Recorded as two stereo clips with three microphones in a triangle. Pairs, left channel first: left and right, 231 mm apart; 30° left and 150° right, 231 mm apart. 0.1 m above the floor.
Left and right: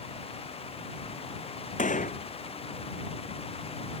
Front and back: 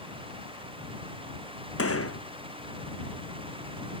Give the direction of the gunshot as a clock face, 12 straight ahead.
11 o'clock.